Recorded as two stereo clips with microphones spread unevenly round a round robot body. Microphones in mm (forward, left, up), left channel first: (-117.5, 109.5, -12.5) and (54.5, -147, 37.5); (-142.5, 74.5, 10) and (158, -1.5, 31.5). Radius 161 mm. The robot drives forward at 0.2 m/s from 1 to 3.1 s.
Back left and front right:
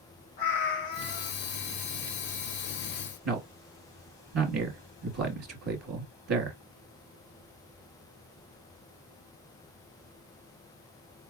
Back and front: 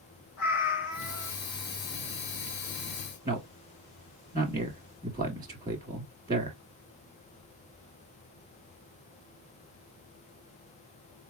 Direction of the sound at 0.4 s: 130° left.